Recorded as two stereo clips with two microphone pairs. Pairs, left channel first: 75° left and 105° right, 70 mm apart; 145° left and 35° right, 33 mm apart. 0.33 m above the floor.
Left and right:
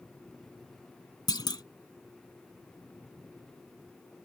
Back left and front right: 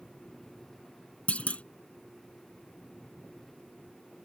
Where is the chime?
I don't hear a chime.